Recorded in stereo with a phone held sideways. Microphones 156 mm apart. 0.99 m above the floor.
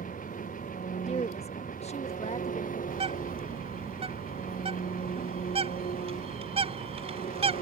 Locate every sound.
0.0 s an engine running: 60° left (ahead or behind)
1.1 s a woman speaking: 45° left (ahead or behind)
2.9 s a bird: 40° right (ahead or behind)